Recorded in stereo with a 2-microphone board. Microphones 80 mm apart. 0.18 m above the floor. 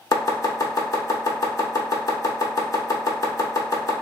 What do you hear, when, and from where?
0.1 s chopping: 45° left (ahead or behind), 0.8 m